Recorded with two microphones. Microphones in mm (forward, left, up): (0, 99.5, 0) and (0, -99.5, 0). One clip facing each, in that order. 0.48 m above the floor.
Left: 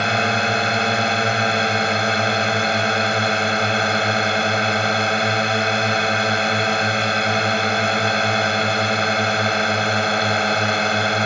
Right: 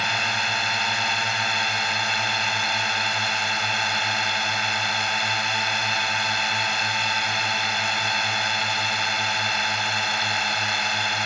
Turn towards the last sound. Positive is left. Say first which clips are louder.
# left 10 dB
turn(degrees=60)  # may be behind; listen again after turning